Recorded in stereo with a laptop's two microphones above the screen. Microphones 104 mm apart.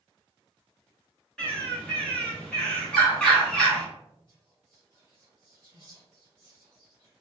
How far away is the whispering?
About 1.2 m.